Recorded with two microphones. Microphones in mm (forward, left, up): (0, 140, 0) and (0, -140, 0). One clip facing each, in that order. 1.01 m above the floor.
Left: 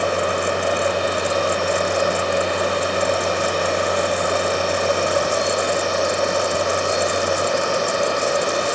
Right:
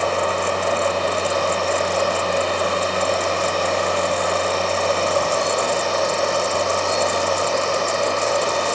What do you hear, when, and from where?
Only background noise.